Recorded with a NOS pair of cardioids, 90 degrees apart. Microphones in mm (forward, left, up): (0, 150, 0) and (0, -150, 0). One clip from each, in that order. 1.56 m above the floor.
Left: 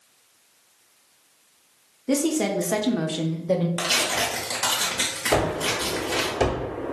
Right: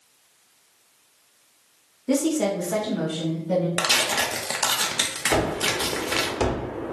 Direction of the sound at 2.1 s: Straight ahead.